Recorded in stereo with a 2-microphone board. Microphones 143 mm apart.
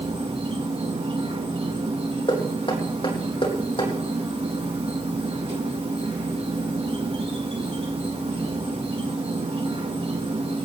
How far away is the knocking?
About 4.5 m.